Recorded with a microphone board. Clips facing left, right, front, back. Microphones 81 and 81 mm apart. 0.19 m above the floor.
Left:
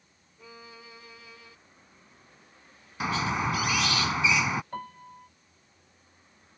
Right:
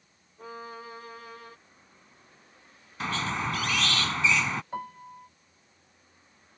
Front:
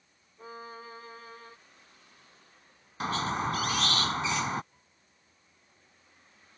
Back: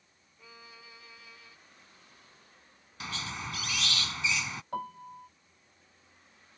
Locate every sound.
0.4 s a violin: 50° right
3.0 s a squeak: 15° left
4.7 s a piano: 170° right